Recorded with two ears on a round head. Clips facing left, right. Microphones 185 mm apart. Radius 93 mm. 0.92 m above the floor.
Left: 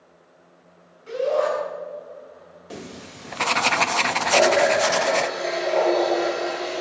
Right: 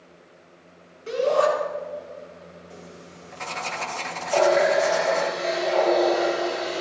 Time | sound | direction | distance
1.1 | a shout | 70° right (ahead or behind) | 8.5 m
2.7 | writing | 75° left (ahead or behind) | 0.6 m
4.3 | a running tap | centre (ahead or behind) | 7.5 m